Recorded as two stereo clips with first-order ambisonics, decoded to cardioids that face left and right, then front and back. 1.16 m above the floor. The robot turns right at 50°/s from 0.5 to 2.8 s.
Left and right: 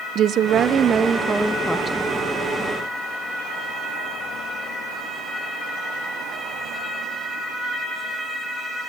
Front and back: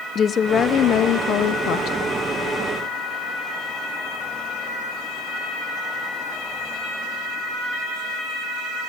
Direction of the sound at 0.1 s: 50° right.